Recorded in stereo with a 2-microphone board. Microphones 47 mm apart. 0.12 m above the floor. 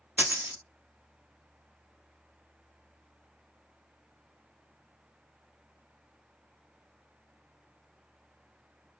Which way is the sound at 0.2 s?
35° right (ahead or behind).